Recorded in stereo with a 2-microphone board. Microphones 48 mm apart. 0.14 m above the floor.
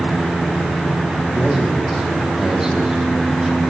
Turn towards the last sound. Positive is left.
turn(degrees=-15)  # may be behind; listen again after turning